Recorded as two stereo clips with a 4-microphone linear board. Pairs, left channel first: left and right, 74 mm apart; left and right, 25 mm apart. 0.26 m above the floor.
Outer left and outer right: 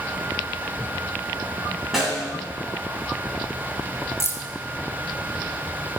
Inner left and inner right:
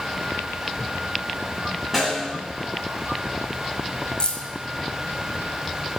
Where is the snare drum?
Centre (ahead or behind), 2.5 m.